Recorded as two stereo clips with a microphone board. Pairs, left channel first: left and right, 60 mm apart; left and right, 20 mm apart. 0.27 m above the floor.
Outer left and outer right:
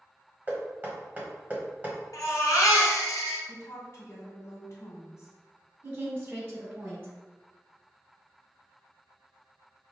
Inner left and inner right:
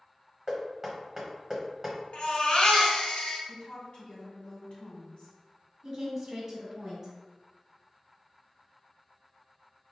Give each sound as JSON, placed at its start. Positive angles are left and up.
{"t": 0.5, "sound": "knocking", "side_deg": -25, "distance_m": 1.4}
{"t": 2.1, "sound": "a baby crying", "side_deg": 65, "distance_m": 1.4}
{"t": 3.5, "sound": "a woman speaking", "side_deg": 50, "distance_m": 1.8}
{"t": 5.8, "sound": "a woman speaking", "side_deg": -30, "distance_m": 1.8}